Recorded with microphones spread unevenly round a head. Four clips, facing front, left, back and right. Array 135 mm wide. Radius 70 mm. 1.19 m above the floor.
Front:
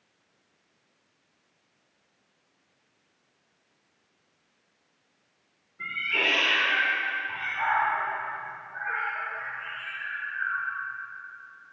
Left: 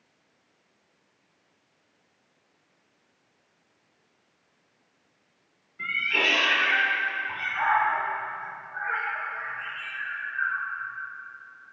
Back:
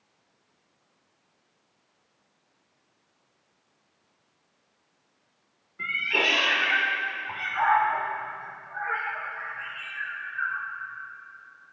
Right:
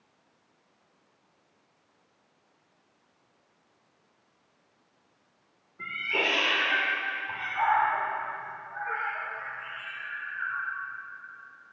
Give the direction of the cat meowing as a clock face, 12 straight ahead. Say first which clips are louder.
Left 2 dB, back 3 dB; 5 o'clock.